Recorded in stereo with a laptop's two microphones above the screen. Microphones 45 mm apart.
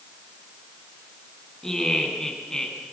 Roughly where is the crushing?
I don't hear crushing.